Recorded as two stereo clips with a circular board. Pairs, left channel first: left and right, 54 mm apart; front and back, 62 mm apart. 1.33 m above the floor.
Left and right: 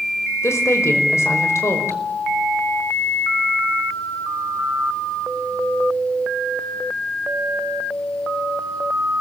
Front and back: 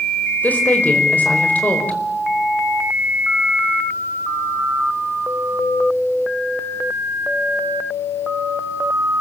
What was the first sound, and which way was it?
A woman speaking, 65° left.